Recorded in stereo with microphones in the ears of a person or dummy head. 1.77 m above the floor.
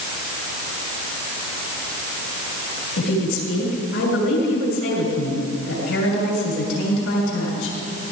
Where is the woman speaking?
90° left, 7 m.